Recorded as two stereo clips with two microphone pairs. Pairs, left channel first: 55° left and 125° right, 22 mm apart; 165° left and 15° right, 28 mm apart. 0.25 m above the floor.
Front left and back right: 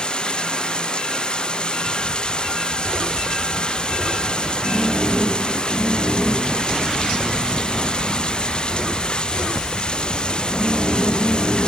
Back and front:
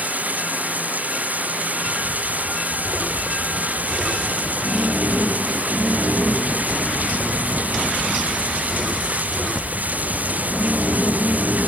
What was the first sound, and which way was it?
Running water, 10° left.